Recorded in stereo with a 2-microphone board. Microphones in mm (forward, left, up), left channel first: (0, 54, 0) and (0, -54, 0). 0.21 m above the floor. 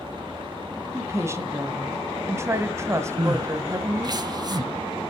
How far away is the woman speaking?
About 1.1 m.